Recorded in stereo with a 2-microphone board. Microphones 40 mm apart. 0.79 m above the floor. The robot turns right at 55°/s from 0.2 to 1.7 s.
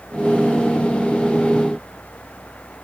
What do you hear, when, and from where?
Only background noise.